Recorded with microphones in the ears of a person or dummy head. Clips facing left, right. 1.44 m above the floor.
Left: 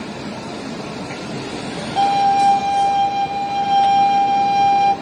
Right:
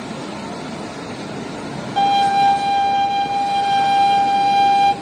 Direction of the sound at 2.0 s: 20° right (ahead or behind).